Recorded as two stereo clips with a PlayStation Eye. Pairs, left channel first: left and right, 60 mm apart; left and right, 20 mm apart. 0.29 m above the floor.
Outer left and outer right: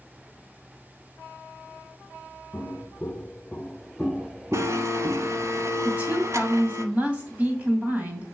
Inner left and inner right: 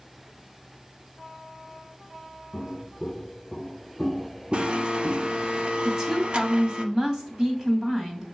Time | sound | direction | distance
2.5 | footsteps | 30° left (ahead or behind) | 1.4 m
4.5 | a blender | 55° right (ahead or behind) | 0.8 m
5.8 | a woman speaking | 25° right (ahead or behind) | 2 m